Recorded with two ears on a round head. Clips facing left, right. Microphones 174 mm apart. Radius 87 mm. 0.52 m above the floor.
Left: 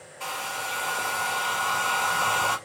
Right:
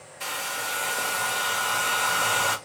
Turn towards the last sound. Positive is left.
turn(degrees=-20)  # may be behind; listen again after turning